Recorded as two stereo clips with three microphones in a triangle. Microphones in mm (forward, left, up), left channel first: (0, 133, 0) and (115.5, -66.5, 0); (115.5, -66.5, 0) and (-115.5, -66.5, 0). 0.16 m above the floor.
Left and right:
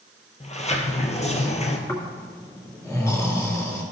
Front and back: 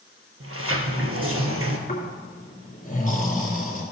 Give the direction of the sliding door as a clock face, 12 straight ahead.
6 o'clock.